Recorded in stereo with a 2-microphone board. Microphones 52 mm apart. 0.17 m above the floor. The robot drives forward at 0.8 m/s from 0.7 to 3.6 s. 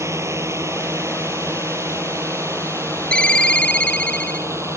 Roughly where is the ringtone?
Left.